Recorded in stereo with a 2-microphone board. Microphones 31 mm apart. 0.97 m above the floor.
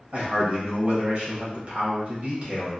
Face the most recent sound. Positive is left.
turn(degrees=-40)  # may be behind; listen again after turning